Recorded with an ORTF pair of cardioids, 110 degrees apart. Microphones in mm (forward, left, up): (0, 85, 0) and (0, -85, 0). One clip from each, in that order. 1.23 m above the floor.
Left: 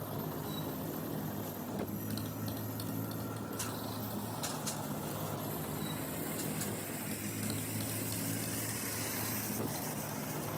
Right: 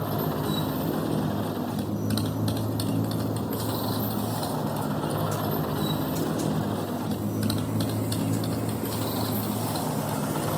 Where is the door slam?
I don't hear a door slam.